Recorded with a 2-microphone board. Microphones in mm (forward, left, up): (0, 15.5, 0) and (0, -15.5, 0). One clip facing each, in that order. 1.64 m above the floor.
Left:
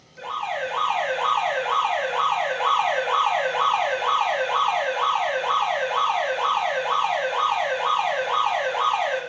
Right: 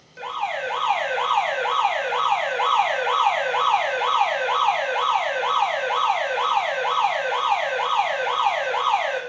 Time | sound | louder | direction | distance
0.2 | an alarm | right 1 dB | 70° right (ahead or behind) | 1.3 m